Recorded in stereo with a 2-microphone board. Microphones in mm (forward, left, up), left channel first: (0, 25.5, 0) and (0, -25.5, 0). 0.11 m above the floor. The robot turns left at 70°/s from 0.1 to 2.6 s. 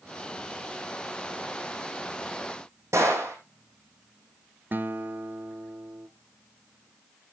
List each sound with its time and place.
2.9 s a gunshot: 70° right (ahead or behind), 3 m
4.7 s a guitar: 40° right (ahead or behind), 0.8 m